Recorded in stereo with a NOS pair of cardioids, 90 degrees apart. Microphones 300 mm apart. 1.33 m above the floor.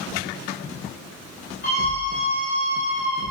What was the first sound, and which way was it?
A scream, 35° left.